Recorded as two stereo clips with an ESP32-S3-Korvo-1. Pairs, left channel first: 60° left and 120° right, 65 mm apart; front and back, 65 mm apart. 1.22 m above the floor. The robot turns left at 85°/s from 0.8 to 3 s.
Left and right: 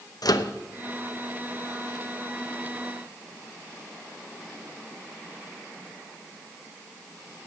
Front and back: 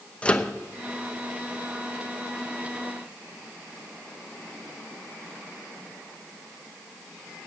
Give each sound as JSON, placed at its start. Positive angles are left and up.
{"t": 0.2, "sound": "a microwave", "azimuth_deg": 70, "distance_m": 0.7}